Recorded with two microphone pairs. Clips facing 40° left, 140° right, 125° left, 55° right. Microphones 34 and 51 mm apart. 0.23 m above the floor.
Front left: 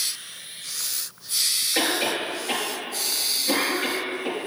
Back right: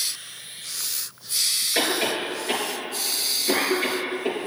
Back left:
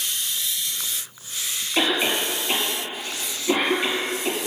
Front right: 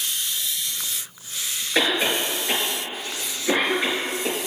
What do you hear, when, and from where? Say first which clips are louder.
1.8 s a cough: even, front right 1 dB; 65° right, 4.5 m